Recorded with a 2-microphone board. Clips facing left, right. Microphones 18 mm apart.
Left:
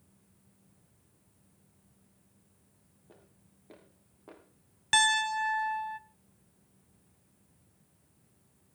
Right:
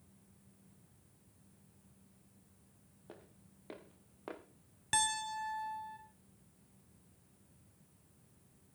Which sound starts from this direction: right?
Footsteps, at 3.1 s.